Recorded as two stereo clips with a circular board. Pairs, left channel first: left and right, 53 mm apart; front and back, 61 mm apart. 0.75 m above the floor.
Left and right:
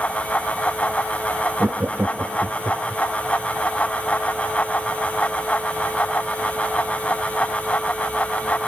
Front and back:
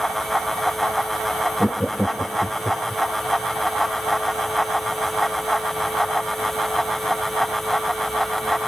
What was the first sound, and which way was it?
Laughter, 85° right.